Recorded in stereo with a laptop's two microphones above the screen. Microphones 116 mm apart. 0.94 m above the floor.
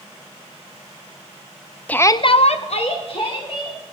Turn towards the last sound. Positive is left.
turn(degrees=45)  # may be behind; listen again after turning